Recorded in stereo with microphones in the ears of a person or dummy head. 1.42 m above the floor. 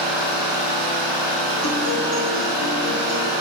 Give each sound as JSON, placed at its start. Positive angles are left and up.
{"t": 0.0, "sound": "an engine running", "side_deg": 5, "distance_m": 1.1}
{"t": 1.6, "sound": "a guitar", "side_deg": 85, "distance_m": 0.6}